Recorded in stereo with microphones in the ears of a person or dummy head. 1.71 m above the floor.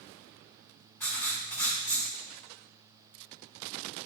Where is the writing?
10° left (ahead or behind), 4 m.